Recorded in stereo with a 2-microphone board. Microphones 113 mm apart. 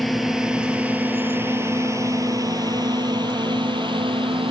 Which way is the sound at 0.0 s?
Centre (ahead or behind).